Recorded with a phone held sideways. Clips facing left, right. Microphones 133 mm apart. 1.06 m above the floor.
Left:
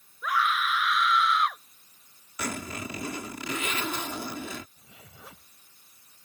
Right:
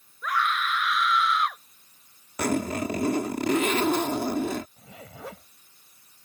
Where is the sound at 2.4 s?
50° right (ahead or behind).